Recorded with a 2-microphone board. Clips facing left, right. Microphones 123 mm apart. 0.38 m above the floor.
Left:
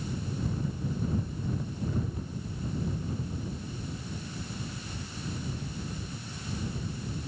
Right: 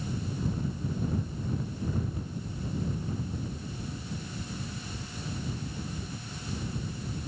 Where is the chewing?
I don't hear chewing.